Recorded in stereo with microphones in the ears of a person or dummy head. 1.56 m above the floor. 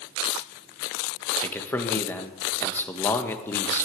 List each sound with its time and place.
1.4 s a man speaking: 10° left (ahead or behind), 1.6 m